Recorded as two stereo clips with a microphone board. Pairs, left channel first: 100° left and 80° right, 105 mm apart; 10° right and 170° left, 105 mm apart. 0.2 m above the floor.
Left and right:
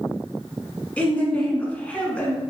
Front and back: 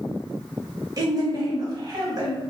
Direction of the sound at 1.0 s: 165° left.